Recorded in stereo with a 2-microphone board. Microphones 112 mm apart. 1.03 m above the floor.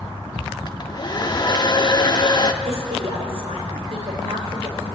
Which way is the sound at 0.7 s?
40° left (ahead or behind).